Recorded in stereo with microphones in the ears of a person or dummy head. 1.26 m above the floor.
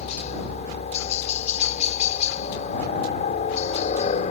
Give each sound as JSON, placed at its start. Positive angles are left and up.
{"t": 0.0, "sound": "a helicopter", "side_deg": 35}